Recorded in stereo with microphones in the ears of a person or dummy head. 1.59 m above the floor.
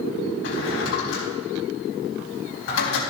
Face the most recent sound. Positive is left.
turn(degrees=75)  # may be behind; listen again after turning